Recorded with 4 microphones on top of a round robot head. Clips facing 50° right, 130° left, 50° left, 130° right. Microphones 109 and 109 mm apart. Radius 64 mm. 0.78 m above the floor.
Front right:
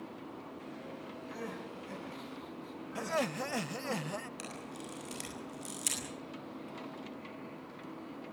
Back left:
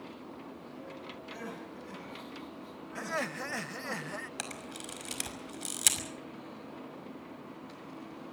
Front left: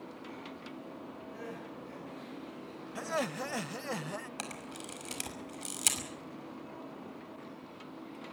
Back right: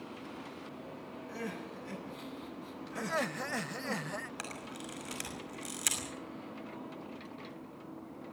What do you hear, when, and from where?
1.3 s crying: 140° right, 9 m
3.0 s laughter: 15° right, 0.6 m
4.4 s a camera shutter: 110° left, 5.5 m